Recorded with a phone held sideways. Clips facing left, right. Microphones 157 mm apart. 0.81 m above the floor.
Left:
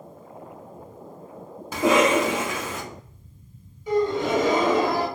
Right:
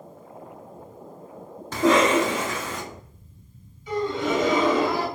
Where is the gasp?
45° left (ahead or behind), 1.4 m.